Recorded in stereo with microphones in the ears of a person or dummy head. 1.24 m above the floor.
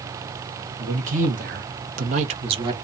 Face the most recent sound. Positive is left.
turn(degrees=-25)  # may be behind; listen again after turning